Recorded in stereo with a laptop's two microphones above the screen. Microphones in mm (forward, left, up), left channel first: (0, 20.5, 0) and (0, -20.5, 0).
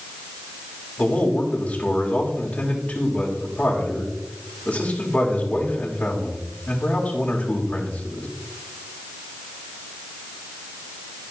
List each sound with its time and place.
1.0 s a man speaking: 30° left (ahead or behind), 1.6 m